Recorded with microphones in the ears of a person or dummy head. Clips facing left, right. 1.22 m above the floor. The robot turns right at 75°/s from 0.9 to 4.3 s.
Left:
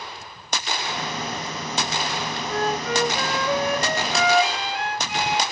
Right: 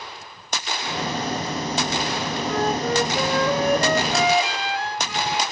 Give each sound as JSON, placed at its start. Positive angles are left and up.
{"t": 2.5, "sound": "a flute", "azimuth_deg": 180, "distance_m": 4.5}